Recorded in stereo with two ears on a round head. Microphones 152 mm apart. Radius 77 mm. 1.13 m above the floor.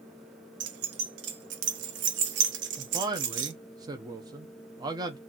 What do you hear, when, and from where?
0.6 s keys jangling: 75° right (ahead or behind), 0.7 m
2.8 s a man speaking: 25° right (ahead or behind), 0.7 m